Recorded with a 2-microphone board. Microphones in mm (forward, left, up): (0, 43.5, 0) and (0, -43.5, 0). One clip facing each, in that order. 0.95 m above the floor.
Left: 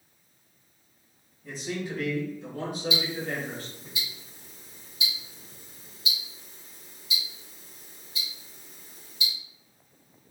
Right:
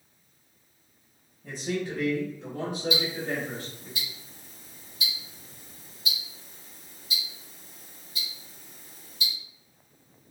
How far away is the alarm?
No alarm in this recording.